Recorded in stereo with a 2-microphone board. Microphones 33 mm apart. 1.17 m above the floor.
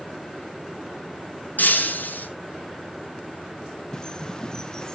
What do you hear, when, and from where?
1.6 s breaking glass: 60° left (ahead or behind), 4.5 m
3.9 s a bird: 20° left (ahead or behind), 0.7 m